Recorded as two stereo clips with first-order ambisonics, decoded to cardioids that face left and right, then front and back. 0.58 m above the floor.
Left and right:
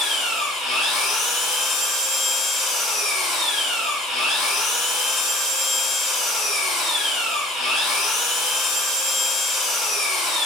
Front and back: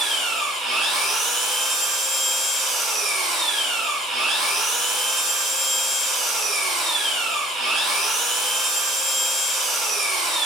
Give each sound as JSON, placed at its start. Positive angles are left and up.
{"t": 0.0, "sound": "an engine running", "azimuth_deg": 120, "distance_m": 1.4}